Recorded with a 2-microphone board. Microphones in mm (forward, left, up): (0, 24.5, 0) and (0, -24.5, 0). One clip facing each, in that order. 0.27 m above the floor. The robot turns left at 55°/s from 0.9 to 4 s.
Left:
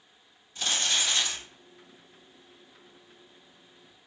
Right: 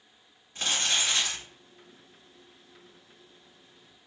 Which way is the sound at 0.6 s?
45° right (ahead or behind).